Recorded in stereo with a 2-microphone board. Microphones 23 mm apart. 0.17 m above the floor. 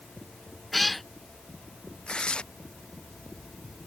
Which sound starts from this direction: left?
Tearing paper, at 2.1 s.